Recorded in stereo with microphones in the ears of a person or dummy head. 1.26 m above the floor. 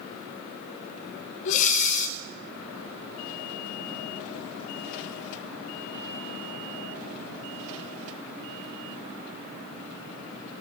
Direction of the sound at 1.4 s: 40° left (ahead or behind).